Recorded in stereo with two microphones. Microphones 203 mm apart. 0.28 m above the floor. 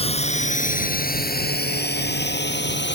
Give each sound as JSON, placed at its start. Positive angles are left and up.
{"t": 0.0, "sound": "a drone", "side_deg": 30}